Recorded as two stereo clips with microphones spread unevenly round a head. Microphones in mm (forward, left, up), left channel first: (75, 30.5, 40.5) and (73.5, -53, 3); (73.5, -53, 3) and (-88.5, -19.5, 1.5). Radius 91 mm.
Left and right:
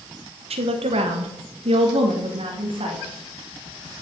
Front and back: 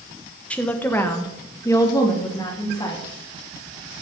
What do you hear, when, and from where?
0.5 s a woman speaking: 95° right, 1.2 m; by 3.0 s 80° right, 2.5 m